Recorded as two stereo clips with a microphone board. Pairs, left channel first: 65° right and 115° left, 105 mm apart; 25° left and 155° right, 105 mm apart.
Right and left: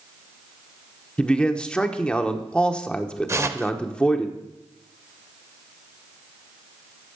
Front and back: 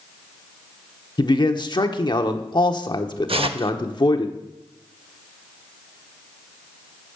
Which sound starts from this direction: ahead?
A man speaking, at 1.2 s.